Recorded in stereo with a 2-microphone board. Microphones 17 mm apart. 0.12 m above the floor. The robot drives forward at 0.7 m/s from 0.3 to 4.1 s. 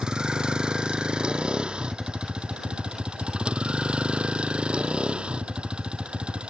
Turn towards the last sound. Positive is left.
turn(degrees=-70)  # may be behind; listen again after turning